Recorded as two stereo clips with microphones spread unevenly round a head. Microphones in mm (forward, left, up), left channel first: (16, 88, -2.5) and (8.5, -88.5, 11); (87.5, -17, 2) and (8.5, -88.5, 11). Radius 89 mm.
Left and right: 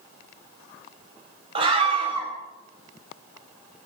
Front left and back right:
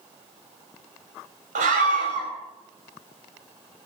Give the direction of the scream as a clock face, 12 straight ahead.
5 o'clock.